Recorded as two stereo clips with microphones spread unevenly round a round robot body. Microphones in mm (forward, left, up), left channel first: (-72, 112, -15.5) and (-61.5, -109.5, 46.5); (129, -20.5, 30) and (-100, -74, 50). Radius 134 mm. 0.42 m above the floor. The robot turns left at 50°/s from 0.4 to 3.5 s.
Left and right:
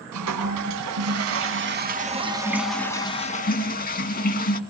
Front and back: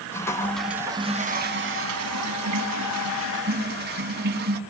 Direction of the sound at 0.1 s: 65° right.